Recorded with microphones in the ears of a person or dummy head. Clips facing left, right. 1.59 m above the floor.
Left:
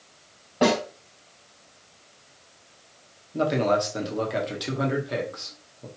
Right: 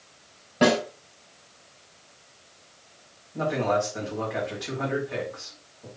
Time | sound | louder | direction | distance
0.6 | a snare drum | right 1 dB | 20° right (ahead or behind) | 3 m
3.3 | a man speaking | left 2 dB | 45° left (ahead or behind) | 1.1 m